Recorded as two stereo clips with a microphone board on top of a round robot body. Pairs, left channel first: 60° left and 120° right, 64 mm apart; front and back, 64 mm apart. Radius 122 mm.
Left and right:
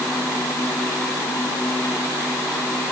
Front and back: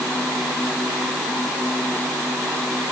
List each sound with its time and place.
Only background noise.